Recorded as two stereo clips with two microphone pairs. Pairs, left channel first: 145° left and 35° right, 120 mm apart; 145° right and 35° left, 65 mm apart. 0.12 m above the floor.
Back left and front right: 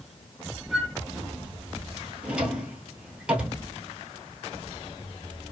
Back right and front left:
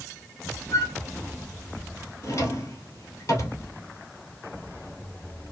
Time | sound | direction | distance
0.7 | a flute | 120° right | 0.7 m
2.2 | a drawer | 115° right | 1.2 m